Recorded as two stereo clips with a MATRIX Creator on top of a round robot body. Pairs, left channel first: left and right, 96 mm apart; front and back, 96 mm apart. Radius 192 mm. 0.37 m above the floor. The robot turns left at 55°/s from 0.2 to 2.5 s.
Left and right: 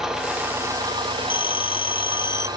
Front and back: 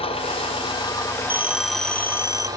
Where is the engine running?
5° right, 3 m; by 2.6 s 130° right, 3 m.